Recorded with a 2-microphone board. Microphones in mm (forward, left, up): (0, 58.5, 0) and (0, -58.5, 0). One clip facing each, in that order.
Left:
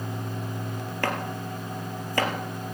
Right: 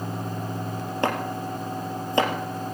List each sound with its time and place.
1.0 s chopping: 20° right (ahead or behind), 3 m